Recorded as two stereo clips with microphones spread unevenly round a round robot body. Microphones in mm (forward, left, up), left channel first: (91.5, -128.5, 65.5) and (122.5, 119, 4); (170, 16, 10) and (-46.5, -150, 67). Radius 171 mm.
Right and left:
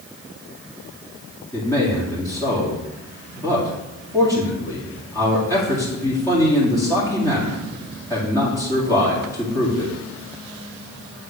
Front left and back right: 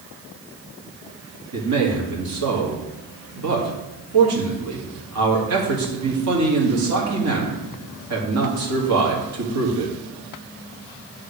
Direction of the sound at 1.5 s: Straight behind.